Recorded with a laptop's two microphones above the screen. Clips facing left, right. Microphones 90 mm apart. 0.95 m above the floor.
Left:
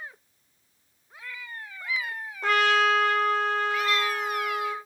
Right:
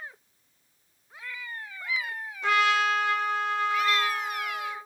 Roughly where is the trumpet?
Left.